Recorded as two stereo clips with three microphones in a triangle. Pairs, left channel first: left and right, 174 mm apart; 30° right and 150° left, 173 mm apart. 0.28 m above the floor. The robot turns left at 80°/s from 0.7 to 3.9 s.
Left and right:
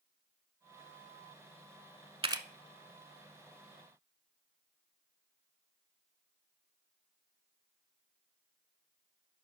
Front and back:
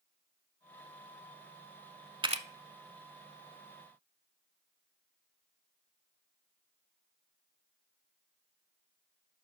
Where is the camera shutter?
145° right, 0.5 m; by 2.5 s 165° right, 0.5 m.